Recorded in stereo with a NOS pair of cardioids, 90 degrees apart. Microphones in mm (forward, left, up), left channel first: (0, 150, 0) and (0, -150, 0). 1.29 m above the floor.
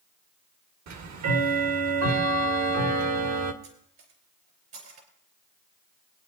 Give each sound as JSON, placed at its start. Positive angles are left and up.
{"t": 0.9, "sound": "ticking", "azimuth_deg": -65, "distance_m": 1.4}
{"t": 3.6, "sound": "cutlery clinking", "azimuth_deg": -65, "distance_m": 4.0}